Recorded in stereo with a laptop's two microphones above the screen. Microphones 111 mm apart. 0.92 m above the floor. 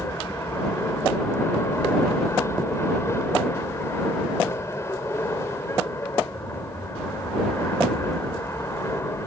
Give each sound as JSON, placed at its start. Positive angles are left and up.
{"t": 0.0, "sound": "an aircraft", "side_deg": 25}